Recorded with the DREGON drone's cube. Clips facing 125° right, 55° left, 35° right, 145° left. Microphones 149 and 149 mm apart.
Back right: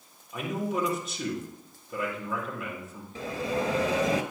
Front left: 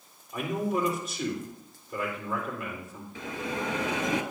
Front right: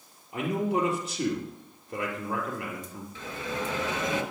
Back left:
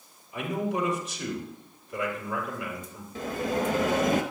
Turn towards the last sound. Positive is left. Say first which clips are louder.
# back right 4 dB, back left 7 dB
turn(degrees=-175)